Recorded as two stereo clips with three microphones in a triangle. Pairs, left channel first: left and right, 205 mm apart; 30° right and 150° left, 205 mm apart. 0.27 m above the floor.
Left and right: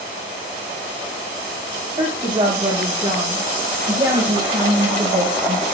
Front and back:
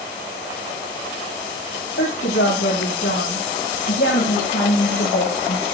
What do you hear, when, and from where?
2.0 s a woman speaking: 30° right, 8.5 m; by 5.6 s 35° right, 6 m